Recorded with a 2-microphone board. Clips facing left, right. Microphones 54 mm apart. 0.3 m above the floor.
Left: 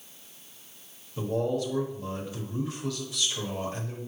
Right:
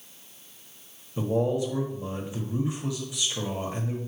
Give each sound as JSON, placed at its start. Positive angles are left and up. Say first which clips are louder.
{"t": 1.2, "sound": "a man speaking", "louder": "right 3 dB", "side_deg": -20, "distance_m": 1.6}